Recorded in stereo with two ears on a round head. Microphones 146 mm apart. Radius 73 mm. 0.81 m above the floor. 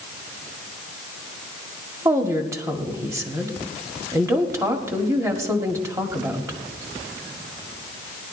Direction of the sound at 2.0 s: 20° right (ahead or behind).